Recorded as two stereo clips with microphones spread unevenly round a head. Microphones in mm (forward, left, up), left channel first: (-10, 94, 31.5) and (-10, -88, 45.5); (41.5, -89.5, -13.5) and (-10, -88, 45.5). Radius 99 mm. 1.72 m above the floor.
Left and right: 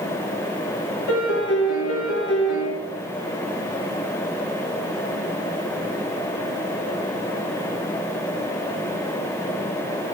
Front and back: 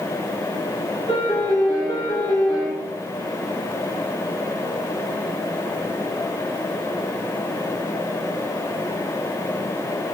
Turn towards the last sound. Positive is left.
turn(degrees=85)